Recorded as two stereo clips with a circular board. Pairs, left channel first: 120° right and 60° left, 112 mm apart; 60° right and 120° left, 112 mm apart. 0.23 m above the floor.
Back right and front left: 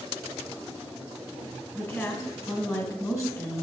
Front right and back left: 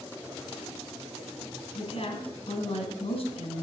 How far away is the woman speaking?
About 2 m.